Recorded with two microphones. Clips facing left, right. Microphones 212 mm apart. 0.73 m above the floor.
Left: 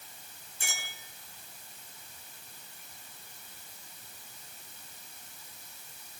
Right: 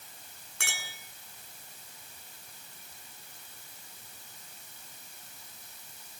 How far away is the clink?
About 7.5 m.